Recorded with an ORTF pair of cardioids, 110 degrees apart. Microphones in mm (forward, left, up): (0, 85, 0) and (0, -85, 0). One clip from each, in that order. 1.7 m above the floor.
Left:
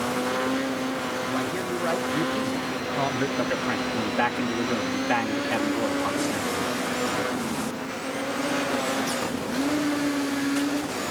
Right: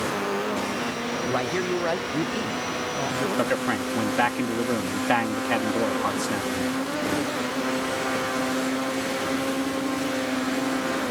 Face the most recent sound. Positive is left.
turn(degrees=-35)